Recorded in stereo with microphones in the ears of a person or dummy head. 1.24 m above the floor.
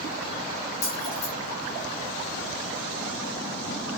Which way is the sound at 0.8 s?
30° left (ahead or behind).